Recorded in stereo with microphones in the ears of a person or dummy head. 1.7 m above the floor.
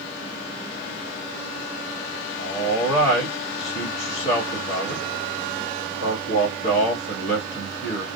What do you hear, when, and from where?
2.4 s a man speaking: 40° left (ahead or behind), 1.1 m